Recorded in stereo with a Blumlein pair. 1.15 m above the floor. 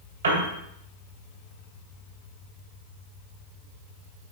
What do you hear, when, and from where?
0.2 s a piano: 70° right, 2.5 m